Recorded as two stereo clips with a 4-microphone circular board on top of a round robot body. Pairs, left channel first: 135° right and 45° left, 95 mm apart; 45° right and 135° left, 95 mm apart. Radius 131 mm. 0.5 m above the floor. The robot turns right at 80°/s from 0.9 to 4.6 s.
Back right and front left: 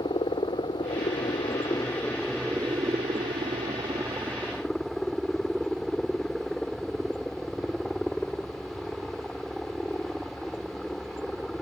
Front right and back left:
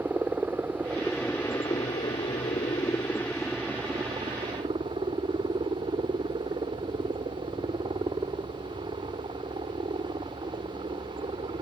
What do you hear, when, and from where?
0.0 s a helicopter: 155° right; by 11.6 s 140° left